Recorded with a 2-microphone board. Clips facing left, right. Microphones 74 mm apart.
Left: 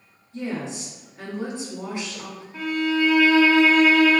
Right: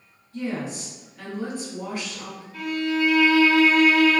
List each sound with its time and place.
0.3 s a woman speaking: 20° left (ahead or behind), 1.3 m
2.5 s a violin: 25° left (ahead or behind), 0.9 m